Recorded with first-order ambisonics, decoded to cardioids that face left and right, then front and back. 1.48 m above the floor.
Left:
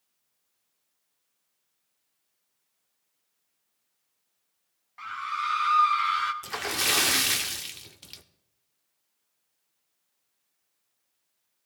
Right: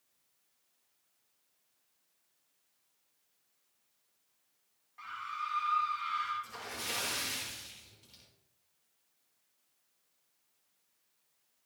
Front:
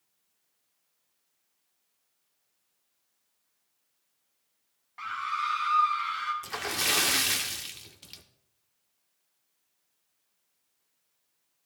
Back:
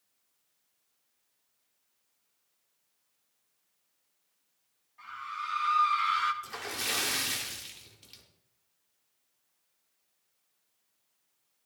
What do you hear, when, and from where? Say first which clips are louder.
5.0 s a scream: left 8 dB, front 7 dB; 30° left, 1.1 m; by 6.3 s 120° left, 1.5 m
6.4 s a splash: left 13 dB, front 5 dB; 70° left, 0.7 m